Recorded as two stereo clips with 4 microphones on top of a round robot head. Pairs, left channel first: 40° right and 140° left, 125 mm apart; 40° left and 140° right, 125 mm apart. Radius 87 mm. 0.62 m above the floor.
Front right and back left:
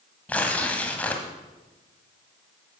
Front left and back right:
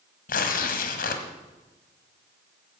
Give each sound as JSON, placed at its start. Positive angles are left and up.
{"t": 0.3, "sound": "tearing paper", "azimuth_deg": 40, "distance_m": 1.4}